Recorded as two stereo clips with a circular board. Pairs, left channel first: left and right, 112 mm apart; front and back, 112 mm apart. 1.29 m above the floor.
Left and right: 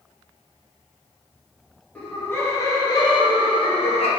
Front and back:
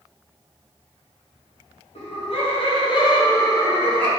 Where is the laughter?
15° left, 1.2 m; by 4.1 s 75° left, 1.1 m.